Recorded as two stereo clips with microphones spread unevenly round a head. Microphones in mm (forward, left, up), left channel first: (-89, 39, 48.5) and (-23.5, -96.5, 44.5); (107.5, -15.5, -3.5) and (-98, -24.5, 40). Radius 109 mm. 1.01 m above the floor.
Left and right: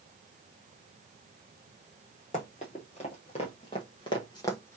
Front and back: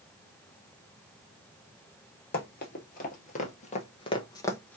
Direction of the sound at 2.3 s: 55° left.